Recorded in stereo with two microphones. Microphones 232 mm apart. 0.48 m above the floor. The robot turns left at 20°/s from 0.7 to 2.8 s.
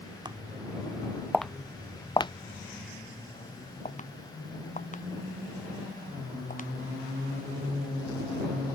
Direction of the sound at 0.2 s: 20° right (ahead or behind).